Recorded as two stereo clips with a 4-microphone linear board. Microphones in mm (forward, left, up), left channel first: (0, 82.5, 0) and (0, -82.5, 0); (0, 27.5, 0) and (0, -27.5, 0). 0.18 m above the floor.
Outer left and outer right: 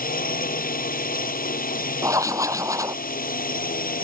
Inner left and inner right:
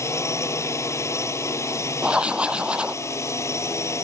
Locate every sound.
0.0 s a drone: 60° left (ahead or behind)
2.0 s writing: 20° right (ahead or behind)